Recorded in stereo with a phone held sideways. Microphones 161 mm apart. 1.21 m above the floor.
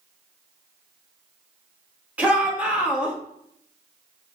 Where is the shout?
10° right (ahead or behind), 3 m.